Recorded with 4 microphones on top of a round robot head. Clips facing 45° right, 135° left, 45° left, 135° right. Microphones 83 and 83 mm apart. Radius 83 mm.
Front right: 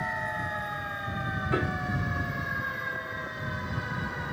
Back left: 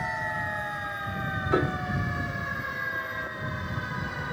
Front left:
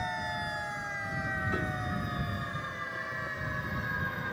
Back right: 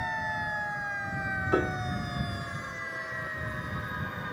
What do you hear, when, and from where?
1.5 s a piano: 160° right